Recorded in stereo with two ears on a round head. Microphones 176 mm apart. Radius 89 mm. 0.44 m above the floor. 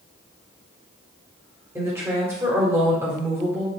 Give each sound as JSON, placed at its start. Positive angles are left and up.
{"t": 1.8, "sound": "a woman speaking", "side_deg": -15, "distance_m": 1.1}